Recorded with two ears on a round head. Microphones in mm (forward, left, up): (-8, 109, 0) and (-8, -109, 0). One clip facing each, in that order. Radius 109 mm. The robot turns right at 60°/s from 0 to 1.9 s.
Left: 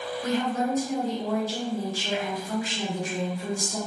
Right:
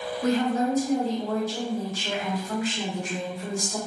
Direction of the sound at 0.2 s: 55° right.